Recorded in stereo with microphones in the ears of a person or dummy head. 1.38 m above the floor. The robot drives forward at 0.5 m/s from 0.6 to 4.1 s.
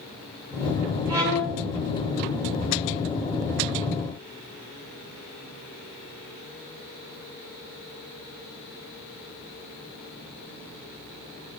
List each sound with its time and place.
1.1 s a violin: 5° right (ahead or behind), 1.3 m